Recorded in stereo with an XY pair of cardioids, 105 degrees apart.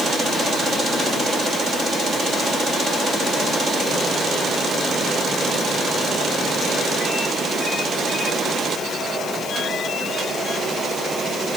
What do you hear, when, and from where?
Only background noise.